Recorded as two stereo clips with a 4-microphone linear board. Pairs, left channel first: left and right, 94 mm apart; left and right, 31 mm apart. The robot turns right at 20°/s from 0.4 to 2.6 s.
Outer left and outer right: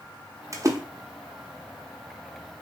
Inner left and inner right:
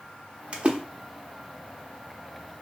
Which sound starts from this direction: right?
A splash, at 0.5 s.